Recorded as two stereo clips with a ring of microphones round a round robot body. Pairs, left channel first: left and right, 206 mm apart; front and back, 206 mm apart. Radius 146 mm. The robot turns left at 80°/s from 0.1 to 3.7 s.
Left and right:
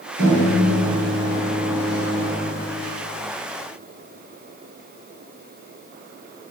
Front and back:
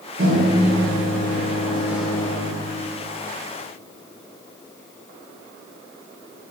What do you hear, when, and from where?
0.2 s a microwave: 125° right, 1.8 m; by 2.5 s 50° left, 1.8 m